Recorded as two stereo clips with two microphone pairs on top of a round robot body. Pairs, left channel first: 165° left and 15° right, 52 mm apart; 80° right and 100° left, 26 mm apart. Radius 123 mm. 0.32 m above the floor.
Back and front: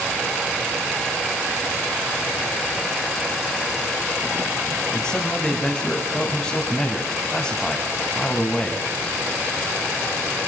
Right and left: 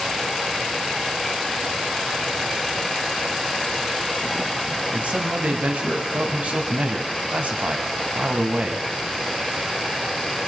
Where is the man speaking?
85° left, 3 m.